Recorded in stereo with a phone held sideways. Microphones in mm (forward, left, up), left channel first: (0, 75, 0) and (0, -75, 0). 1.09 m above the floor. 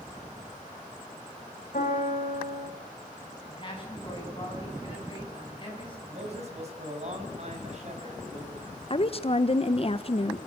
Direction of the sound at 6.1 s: 50° right (ahead or behind).